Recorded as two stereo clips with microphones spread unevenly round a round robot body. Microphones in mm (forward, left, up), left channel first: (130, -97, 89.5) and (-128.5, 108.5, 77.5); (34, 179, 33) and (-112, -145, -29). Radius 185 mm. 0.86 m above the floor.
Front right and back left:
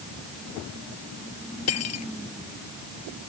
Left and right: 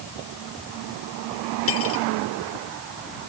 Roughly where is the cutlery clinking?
Ahead.